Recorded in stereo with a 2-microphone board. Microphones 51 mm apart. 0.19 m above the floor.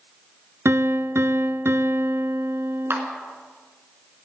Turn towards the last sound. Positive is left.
turn(degrees=-55)  # may be behind; listen again after turning